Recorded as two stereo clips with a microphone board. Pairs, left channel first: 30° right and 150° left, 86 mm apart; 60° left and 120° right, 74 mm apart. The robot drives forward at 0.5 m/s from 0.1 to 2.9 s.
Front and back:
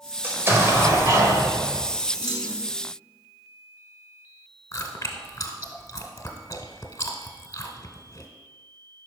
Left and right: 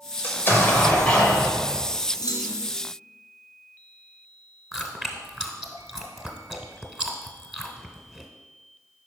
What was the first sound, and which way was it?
An explosion, 95° left.